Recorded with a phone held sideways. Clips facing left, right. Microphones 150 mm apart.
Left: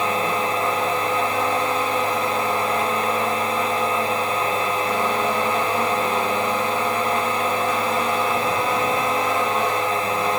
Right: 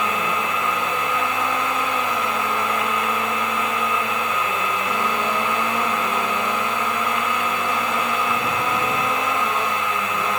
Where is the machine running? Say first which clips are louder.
Left 2 dB; 35° left (ahead or behind).